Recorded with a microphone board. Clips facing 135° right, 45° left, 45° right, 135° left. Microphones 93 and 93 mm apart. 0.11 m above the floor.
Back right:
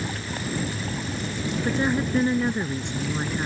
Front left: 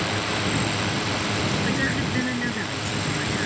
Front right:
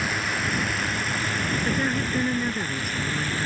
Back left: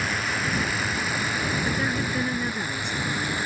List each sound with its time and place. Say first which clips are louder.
0.0 s a drone: front left 5 dB, even; 45° left; by 3.5 s 60° left
1.6 s a woman speaking: back right 1 dB, front right 1 dB; 125° right